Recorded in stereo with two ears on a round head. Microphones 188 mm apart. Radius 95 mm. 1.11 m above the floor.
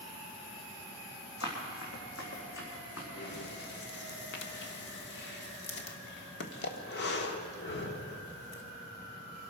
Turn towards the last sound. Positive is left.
turn(degrees=55)  # may be behind; listen again after turning